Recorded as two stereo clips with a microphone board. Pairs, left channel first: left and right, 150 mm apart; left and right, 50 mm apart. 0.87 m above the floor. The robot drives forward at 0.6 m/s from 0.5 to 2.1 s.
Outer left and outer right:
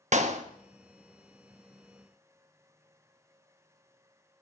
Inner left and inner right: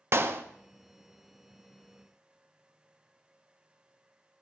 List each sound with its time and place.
0.1 s a clap: 55° right (ahead or behind), 1.1 m